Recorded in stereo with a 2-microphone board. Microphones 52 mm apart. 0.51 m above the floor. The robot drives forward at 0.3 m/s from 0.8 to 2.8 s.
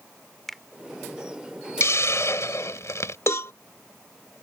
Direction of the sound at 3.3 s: 55° left (ahead or behind).